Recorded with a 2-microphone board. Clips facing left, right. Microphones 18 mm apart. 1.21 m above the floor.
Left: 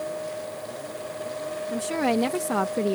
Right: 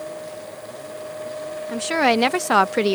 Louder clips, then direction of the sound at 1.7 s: Right 6 dB; 45° right (ahead or behind).